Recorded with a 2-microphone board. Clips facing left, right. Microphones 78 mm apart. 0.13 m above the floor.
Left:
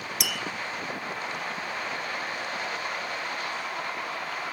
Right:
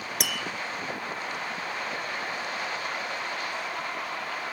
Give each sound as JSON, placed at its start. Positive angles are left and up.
{"t": 0.2, "sound": "tapping", "side_deg": -50, "distance_m": 3.0}